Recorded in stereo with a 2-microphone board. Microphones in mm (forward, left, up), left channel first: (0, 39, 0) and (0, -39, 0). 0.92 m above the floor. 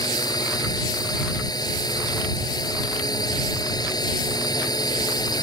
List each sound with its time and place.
0.0 s a drone: 60° left (ahead or behind)